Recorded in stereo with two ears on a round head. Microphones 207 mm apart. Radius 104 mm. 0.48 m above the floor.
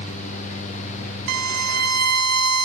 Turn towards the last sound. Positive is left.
turn(degrees=-70)  # may be behind; listen again after turning